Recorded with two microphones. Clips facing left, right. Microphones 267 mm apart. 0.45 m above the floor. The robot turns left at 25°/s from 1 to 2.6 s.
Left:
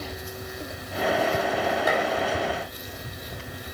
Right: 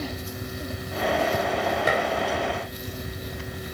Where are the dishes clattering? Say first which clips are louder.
Right 1 dB; 30° right (ahead or behind), 1.4 m; by 2.0 s 35° right (ahead or behind), 1.4 m.